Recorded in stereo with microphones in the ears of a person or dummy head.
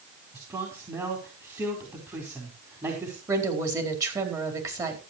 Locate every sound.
0.3 s a man speaking: 20° right (ahead or behind), 4 m
3.3 s a woman speaking: 20° right (ahead or behind), 4 m